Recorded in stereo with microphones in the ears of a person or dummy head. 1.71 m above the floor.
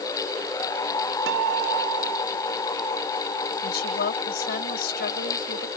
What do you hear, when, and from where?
1.3 s a guitar: 80° right
3.6 s a woman speaking: 60° left (ahead or behind)